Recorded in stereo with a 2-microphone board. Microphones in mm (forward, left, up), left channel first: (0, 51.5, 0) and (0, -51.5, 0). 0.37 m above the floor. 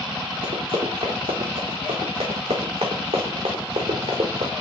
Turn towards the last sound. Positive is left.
turn(degrees=-85)